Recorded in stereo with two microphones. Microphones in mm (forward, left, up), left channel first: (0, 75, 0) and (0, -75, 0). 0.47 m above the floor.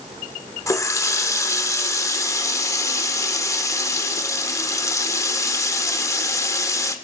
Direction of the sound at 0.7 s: 20° left (ahead or behind).